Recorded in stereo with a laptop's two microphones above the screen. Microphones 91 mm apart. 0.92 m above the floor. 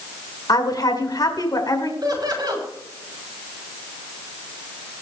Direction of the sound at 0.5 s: 45° left (ahead or behind).